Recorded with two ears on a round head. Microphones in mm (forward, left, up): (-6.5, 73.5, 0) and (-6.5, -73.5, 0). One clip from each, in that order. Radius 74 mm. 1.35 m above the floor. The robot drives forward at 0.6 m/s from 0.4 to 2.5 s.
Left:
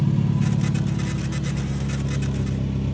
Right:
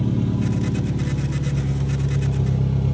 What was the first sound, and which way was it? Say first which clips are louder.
An engine running: right 1 dB; 65° left (ahead or behind).